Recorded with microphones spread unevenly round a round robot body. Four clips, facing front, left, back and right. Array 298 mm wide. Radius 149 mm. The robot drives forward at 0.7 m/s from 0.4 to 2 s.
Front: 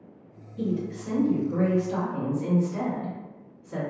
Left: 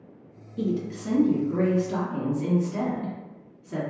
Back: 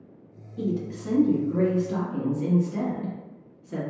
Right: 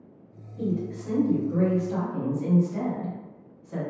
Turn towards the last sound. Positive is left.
turn(degrees=135)